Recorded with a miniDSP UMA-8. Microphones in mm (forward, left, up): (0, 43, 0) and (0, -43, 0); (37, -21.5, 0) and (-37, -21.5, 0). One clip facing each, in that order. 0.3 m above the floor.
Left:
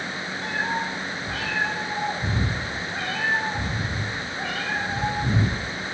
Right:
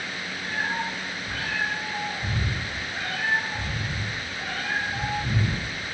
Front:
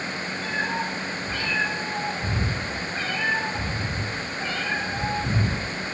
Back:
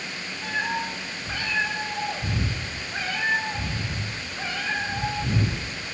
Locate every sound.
0.4 s a cat meowing: 110° left, 3.5 m